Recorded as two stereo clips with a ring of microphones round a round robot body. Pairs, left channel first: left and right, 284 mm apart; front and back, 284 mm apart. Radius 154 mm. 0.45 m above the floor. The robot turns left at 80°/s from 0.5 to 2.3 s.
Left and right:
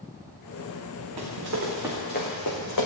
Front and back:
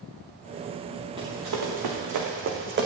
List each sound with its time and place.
1.2 s running footsteps: 105° right, 3 m; by 2.9 s 125° left, 2.5 m